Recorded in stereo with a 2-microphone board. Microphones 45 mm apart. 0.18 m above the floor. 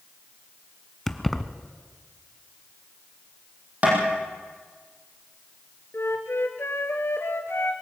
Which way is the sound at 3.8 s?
40° right (ahead or behind).